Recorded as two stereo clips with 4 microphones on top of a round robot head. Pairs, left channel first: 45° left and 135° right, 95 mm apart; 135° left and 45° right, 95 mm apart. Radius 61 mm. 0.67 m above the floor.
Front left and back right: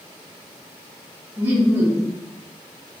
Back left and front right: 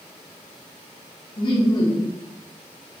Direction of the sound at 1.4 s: 160° left.